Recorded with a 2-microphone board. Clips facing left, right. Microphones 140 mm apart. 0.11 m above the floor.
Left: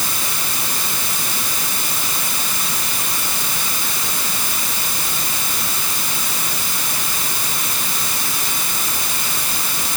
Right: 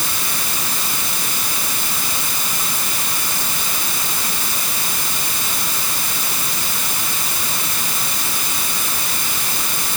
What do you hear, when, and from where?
Only background noise.